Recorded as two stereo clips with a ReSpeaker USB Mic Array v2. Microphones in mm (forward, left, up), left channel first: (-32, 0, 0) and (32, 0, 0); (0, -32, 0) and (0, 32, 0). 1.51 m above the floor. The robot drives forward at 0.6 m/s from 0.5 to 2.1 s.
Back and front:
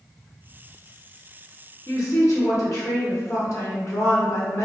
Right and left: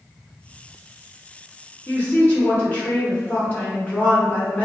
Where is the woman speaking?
145° right, 0.6 m; by 4.7 s 155° right, 0.7 m.